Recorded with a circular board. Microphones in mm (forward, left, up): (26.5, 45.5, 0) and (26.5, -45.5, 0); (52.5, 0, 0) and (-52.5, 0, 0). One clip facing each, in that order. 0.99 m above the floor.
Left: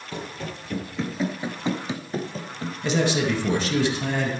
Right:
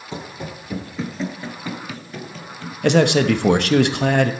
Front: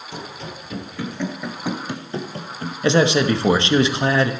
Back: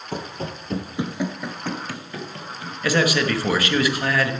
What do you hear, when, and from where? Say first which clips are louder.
0.1 s running footsteps: right 2 dB, back 4 dB; 155° right, 1.6 m; by 2.7 s 40° left, 1.8 m
2.8 s a man speaking: right 7 dB, front 4 dB; 65° right, 0.9 m